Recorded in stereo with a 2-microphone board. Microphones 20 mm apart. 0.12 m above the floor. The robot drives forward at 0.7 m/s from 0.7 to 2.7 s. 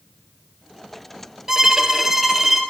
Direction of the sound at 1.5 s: 15° right (ahead or behind).